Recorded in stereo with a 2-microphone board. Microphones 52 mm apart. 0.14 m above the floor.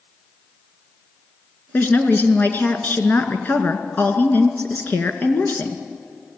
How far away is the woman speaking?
About 1.8 m.